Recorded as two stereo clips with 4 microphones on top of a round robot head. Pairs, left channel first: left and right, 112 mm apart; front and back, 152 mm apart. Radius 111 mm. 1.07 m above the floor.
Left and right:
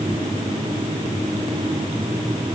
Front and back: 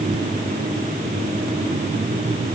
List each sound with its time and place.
Only background noise.